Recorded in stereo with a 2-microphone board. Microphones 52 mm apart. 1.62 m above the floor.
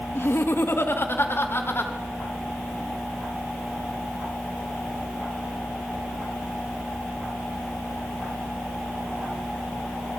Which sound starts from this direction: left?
Laughter, at 0.1 s.